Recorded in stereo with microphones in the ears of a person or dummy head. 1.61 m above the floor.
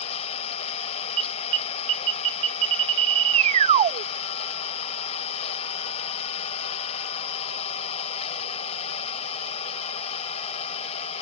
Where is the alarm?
40° right (ahead or behind).